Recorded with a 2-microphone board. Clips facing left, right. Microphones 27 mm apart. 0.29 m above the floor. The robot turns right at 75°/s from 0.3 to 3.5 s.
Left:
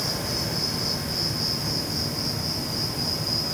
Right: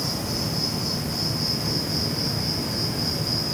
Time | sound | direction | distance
0.0 | an insect | 100° left | 2.5 m